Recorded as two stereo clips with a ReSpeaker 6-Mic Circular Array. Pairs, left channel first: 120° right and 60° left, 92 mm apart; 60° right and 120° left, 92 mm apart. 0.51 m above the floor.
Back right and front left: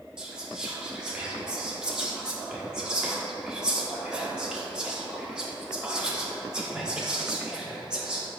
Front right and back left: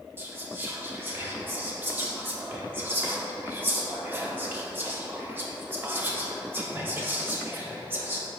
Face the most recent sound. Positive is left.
turn(degrees=130)